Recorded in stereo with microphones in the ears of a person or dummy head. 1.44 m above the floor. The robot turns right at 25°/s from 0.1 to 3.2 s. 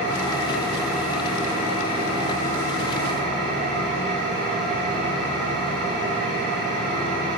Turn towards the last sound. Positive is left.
turn(degrees=-125)